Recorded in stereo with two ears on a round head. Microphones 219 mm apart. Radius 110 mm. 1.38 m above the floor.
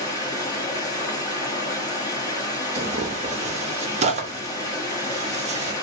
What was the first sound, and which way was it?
Running water, 15° left (ahead or behind).